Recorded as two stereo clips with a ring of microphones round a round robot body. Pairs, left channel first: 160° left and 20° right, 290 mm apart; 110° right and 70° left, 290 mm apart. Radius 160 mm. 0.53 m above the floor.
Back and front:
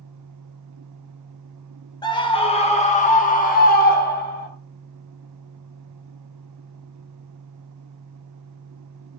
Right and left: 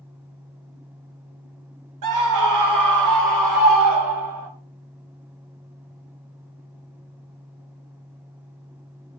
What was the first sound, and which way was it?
A scream, 80° left.